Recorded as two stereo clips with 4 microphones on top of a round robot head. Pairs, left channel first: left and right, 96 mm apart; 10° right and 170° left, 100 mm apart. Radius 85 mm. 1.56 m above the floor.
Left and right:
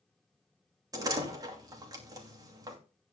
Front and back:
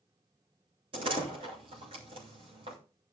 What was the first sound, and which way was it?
A door slam, 140° right.